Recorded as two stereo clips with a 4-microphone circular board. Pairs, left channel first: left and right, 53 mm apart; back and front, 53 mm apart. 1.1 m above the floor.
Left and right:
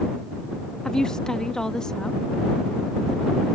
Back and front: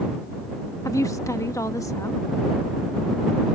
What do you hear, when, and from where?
0.8 s a woman speaking: 170° left